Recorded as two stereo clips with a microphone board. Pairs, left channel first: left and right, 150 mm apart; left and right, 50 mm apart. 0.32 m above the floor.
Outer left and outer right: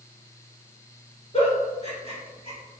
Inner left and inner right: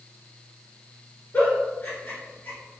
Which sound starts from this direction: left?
A giggle, at 1.3 s.